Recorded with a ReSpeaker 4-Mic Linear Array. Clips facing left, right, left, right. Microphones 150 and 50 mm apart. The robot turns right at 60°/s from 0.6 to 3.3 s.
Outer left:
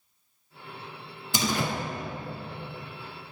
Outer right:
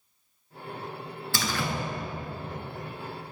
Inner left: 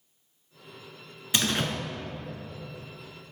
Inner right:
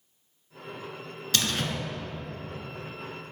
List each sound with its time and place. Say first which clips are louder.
1.3 s a door slam: outer left 3 dB, inner left 1 dB; 20° left (ahead or behind), 1.1 m; by 1.7 s 25° left (ahead or behind), 1.1 m